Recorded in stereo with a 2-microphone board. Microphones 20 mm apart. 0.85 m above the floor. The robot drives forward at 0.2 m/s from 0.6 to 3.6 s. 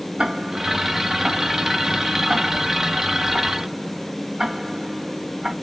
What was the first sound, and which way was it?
Ticking, 55° right (ahead or behind).